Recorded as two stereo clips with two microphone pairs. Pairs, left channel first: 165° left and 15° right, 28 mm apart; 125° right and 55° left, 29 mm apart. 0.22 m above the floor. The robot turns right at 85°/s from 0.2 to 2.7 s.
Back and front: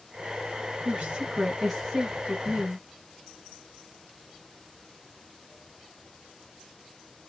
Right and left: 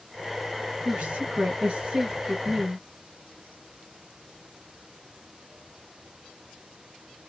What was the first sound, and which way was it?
A woman speaking, straight ahead.